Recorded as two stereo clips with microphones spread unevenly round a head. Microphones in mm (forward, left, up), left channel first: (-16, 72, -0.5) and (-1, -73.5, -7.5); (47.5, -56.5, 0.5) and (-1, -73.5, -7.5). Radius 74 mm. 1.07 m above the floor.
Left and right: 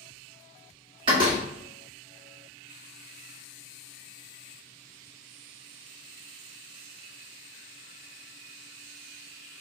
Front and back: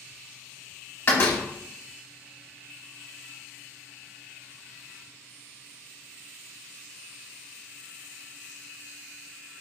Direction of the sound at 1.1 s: 25° right.